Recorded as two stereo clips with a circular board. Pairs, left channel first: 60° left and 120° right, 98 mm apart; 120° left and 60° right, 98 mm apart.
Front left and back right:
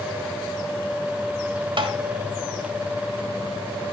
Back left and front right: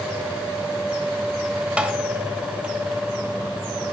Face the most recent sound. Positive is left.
turn(degrees=-140)